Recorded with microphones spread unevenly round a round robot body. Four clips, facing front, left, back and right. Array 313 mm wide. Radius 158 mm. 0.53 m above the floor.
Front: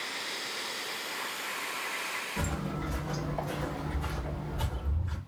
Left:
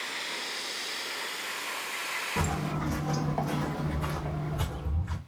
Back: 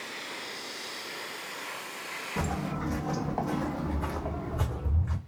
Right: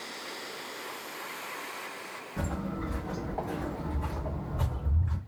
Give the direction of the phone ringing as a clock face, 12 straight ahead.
I don't hear a phone ringing.